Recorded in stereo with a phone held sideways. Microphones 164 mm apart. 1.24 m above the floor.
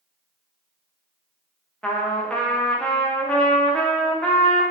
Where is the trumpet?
5° left (ahead or behind), 0.5 m.